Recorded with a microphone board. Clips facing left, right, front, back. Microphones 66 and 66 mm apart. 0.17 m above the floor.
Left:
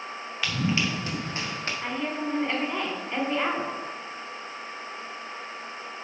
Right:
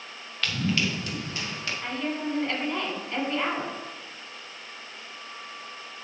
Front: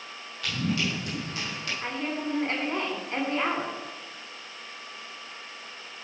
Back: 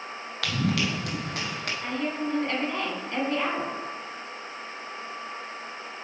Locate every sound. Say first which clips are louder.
0.4 s running footsteps: even, back 2 dB; 170° left, 1.5 m; by 1.7 s 140° left, 3 m
1.8 s a woman speaking: even, back 2 dB; 25° left, 1.6 m